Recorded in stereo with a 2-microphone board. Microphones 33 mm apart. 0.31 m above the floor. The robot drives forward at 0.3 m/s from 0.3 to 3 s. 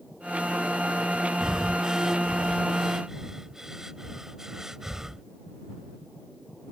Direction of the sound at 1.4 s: 20° right (ahead or behind).